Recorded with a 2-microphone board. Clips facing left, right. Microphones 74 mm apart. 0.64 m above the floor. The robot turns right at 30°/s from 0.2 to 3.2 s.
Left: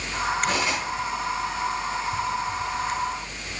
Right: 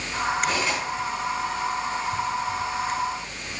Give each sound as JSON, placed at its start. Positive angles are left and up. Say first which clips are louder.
{"t": 0.5, "sound": "cutlery clinking", "louder": "even", "side_deg": 25, "distance_m": 3.5}